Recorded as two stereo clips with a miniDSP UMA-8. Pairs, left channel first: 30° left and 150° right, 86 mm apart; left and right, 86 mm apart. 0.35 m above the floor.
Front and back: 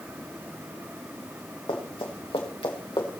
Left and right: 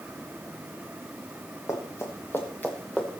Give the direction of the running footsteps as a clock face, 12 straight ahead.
11 o'clock.